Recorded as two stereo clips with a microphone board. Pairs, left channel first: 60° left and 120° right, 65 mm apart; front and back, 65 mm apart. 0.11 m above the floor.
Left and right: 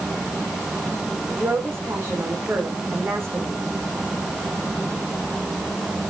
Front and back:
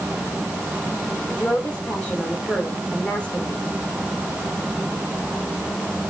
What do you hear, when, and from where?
1.3 s a woman speaking: 70° right, 5.5 m